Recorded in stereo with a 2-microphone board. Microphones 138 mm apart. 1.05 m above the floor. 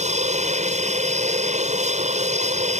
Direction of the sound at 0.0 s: 55° right (ahead or behind).